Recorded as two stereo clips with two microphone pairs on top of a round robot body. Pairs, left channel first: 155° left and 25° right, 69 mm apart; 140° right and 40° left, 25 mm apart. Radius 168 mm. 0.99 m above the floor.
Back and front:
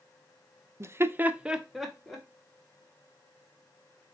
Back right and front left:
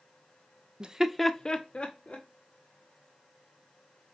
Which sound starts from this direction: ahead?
Laughter, at 0.8 s.